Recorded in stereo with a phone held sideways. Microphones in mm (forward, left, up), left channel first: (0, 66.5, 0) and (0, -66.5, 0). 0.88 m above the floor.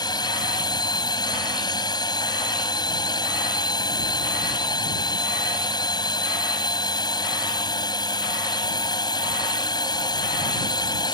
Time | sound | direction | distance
0.0 | a drone | 30° left (ahead or behind) | ?